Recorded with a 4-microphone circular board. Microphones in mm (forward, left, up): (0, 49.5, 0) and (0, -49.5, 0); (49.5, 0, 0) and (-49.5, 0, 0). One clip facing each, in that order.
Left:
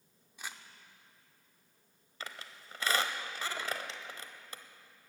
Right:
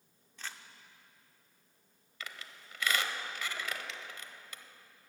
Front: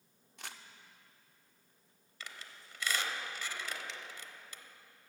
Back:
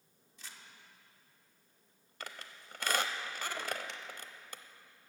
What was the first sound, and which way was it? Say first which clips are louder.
Crumpling: even, front 5 dB; 10° left.